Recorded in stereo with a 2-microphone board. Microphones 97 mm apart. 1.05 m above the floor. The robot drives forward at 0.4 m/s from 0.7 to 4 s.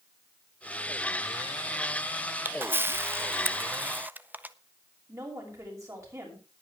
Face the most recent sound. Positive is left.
turn(degrees=-30)  # may be behind; listen again after turning